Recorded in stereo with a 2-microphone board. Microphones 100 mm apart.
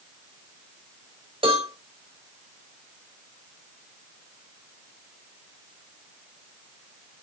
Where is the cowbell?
65° right (ahead or behind), 4 m.